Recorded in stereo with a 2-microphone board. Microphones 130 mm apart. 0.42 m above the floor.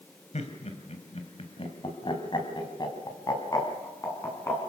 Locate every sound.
0.3 s laughter: 60° left (ahead or behind), 3 m; by 4.7 s 20° left (ahead or behind), 5.5 m